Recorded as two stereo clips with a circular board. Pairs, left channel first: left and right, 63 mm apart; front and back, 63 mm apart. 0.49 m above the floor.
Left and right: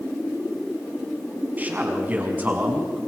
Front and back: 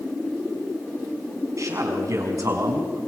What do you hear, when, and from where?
1.6 s a man speaking: 150° right, 5 m